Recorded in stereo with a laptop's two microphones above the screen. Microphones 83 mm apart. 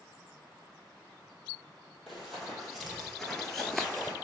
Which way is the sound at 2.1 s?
5° left (ahead or behind).